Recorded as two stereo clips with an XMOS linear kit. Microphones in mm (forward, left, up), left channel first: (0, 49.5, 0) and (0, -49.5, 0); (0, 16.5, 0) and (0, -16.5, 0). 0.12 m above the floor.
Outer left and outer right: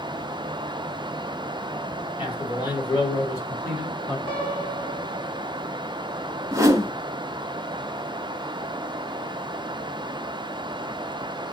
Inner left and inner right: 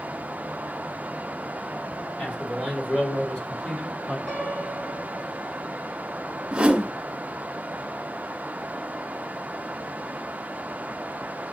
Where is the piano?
30° left (ahead or behind), 2.5 m.